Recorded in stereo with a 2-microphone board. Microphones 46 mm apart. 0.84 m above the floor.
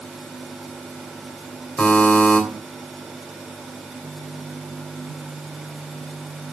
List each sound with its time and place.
1.8 s a buzzer: 40° left (ahead or behind), 3 m